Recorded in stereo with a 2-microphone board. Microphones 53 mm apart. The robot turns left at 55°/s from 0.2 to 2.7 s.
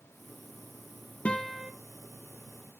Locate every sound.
1.2 s a guitar: 25° left (ahead or behind), 0.8 m; by 1.7 s centre (ahead or behind), 0.8 m